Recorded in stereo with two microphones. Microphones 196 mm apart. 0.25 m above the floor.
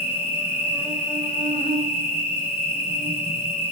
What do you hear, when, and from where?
0.0 s an insect: 30° left (ahead or behind), 1.5 m